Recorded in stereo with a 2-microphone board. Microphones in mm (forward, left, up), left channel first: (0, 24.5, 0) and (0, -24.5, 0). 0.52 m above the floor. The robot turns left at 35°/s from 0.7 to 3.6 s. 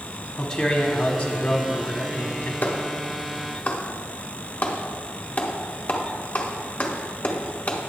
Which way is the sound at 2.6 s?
40° left (ahead or behind).